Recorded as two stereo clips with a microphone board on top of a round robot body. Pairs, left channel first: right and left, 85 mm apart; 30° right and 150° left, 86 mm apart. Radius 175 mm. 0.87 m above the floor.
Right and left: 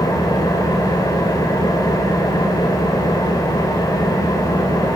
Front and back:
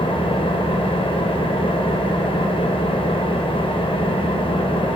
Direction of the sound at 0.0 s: 40° right.